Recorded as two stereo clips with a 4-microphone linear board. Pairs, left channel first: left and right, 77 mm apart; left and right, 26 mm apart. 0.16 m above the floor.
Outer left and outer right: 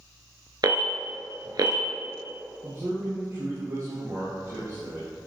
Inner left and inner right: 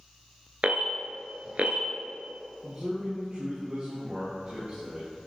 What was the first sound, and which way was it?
An alarm, 60° right (ahead or behind).